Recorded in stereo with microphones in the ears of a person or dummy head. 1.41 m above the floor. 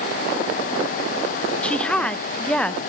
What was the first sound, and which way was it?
A woman speaking, 5° left (ahead or behind).